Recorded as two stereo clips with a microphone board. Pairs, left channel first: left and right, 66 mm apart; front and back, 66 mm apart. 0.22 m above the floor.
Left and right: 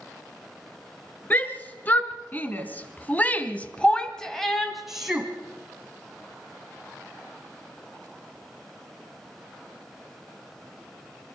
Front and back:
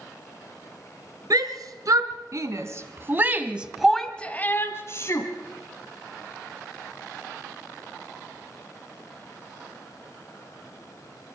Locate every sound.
1.3 s a shout: 155° left, 3 m; by 5.3 s 10° right, 1.9 m